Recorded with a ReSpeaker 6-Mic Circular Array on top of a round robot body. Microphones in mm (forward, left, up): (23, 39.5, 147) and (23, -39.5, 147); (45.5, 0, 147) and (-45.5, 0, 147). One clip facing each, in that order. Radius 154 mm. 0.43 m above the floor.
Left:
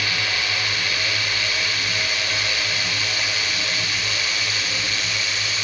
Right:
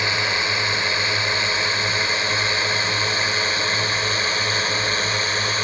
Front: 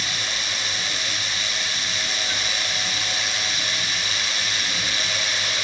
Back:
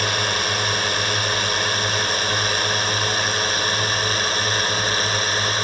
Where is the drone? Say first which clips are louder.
Right 3 dB, back 8 dB; 150° right; by 5.7 s 140° right.